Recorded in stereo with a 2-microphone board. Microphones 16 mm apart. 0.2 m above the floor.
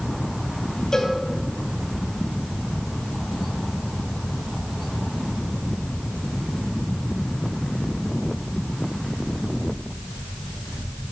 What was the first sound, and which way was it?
A cowbell, 40° left (ahead or behind).